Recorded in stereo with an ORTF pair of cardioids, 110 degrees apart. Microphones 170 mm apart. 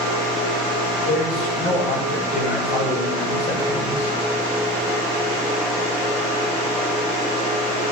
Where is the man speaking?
65° left, 10 m; by 4.1 s 40° left, 7 m.